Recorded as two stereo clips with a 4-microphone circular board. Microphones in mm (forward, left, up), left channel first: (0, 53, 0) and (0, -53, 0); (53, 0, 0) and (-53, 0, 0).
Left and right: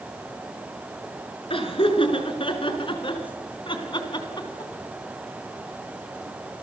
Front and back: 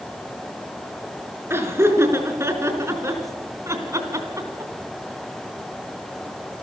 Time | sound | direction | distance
1.5 | laughter | 115° left | 5 m